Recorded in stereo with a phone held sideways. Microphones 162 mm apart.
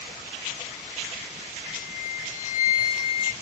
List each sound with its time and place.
1.6 s a flute: 40° left (ahead or behind), 0.6 m